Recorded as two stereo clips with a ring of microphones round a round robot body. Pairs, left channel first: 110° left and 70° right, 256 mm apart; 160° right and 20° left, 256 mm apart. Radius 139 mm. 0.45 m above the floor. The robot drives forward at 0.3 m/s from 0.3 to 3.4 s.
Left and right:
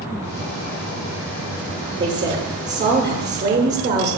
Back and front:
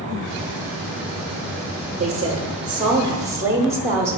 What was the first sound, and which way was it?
A woman speaking, 35° right.